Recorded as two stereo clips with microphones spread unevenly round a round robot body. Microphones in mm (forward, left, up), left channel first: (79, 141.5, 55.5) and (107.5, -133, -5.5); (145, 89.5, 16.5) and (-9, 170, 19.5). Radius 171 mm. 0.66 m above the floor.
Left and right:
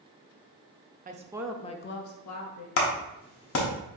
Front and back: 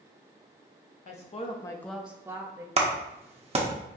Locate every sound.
1.1 s a woman speaking: 55° right, 0.7 m; by 2.7 s 85° left, 1.0 m
2.8 s a clap: 125° left, 0.9 m